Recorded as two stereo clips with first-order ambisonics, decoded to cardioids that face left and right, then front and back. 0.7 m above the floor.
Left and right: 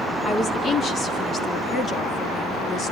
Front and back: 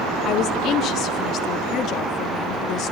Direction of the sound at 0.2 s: 30° left.